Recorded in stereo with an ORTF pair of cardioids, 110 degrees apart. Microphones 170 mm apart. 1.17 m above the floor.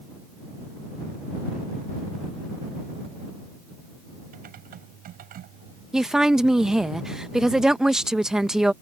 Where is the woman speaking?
5° right.